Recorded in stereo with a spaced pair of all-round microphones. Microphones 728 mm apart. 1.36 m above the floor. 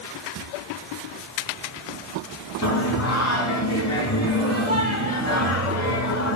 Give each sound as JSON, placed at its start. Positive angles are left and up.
{"t": 2.6, "sound": "singing", "side_deg": 20, "distance_m": 4.0}